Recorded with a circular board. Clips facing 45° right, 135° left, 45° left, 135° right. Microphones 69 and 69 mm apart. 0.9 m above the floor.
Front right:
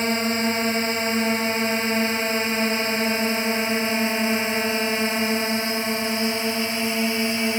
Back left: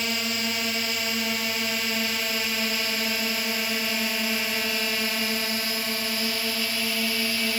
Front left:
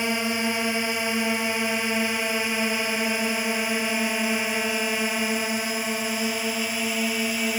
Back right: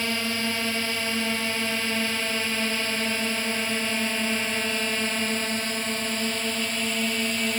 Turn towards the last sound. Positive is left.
turn(degrees=-20)